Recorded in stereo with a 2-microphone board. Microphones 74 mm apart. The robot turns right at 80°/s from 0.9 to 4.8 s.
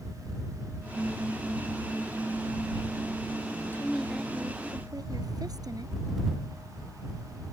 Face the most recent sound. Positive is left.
turn(degrees=-120)